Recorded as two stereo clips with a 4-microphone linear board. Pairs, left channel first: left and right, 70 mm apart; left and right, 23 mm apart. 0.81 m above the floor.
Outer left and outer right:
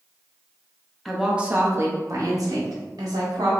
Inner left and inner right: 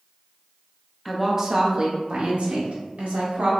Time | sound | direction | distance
1.1 | a woman speaking | centre (ahead or behind) | 0.7 m